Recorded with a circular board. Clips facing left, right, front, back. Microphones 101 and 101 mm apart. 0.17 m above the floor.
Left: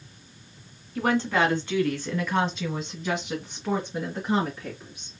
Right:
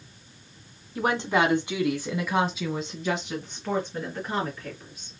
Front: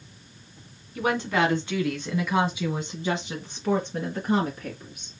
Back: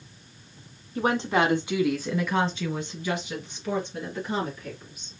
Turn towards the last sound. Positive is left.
turn(degrees=15)